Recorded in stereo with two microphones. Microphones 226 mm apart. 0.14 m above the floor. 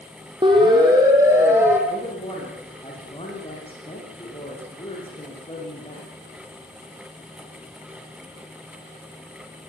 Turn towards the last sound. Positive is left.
turn(degrees=25)  # may be behind; listen again after turning